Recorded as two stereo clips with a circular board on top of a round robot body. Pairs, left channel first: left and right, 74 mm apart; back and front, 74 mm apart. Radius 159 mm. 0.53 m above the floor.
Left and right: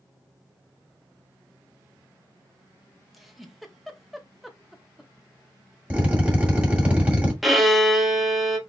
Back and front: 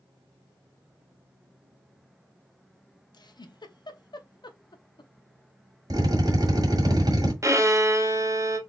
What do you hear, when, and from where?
3.1 s a giggle: 175° right, 1.0 m
5.9 s a drill: 15° right, 2.5 m
7.4 s a violin: straight ahead, 1.4 m